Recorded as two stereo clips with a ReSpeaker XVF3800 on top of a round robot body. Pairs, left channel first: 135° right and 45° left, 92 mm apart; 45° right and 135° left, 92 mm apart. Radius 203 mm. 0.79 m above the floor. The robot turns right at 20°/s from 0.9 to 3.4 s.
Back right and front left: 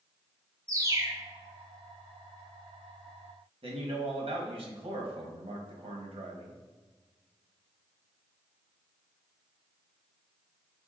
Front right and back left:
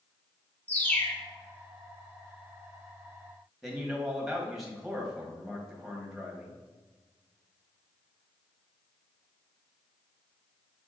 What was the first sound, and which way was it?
A bird, 15° left.